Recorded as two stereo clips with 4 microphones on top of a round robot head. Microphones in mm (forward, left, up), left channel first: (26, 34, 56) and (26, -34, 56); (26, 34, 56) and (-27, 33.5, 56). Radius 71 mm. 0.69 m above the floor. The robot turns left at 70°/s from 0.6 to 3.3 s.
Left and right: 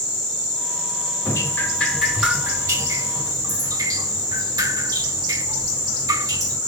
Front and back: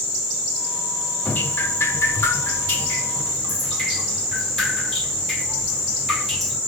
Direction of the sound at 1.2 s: 55° left.